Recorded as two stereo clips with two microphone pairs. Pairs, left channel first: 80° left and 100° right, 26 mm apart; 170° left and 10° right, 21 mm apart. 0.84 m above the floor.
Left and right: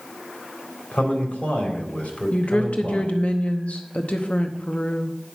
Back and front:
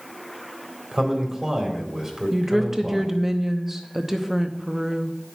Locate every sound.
0.9 s a man speaking: 60° left, 3.5 m
2.3 s a woman speaking: 55° left, 0.8 m